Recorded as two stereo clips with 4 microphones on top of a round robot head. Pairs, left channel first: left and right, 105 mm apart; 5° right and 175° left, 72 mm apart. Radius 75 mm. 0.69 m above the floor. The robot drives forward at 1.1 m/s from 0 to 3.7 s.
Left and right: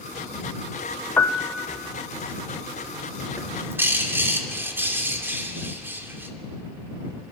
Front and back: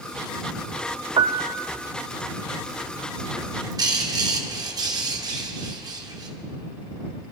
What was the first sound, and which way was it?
A piano, 160° left.